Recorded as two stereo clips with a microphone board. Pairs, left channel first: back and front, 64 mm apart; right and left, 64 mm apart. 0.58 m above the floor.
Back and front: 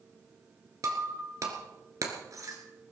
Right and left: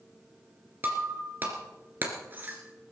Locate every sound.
0.8 s breaking glass: 30° left, 2.5 m